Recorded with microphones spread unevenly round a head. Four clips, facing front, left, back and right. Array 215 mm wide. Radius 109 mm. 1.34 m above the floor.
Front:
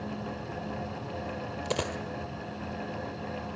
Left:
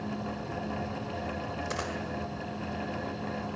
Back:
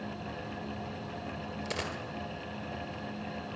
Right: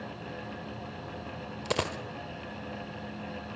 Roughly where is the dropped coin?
Ahead right.